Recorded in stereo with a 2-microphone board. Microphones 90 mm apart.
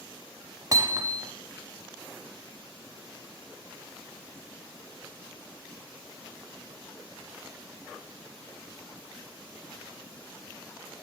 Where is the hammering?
40° right (ahead or behind), 1.0 m.